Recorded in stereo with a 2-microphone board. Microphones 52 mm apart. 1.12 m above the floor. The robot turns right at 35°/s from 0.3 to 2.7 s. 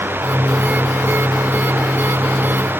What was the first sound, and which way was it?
Only background noise.